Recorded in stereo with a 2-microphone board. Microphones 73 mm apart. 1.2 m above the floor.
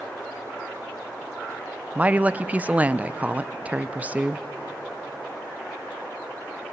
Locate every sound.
1.9 s a woman speaking: 20° right (ahead or behind), 0.6 m